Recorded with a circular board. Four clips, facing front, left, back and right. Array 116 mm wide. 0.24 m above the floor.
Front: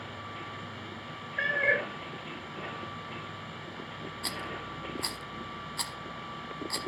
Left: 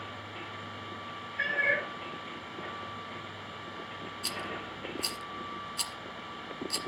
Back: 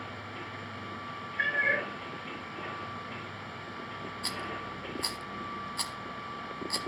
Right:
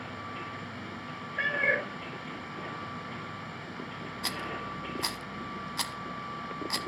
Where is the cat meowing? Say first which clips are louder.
Right 1 dB, front 2 dB; 35° right, 6.5 m.